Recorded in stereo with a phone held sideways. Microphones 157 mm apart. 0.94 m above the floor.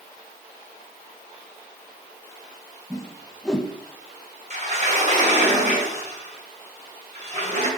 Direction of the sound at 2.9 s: 5° left (ahead or behind).